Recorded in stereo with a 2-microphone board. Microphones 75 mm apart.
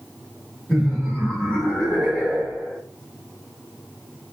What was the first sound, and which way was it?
Laughter, 20° left (ahead or behind).